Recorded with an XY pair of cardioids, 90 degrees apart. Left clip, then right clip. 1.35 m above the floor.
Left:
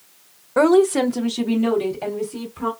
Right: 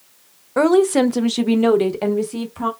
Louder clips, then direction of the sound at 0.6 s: Even; straight ahead.